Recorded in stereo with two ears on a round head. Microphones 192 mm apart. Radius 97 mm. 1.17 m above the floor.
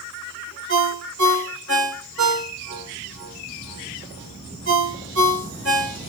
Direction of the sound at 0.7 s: 60° right (ahead or behind).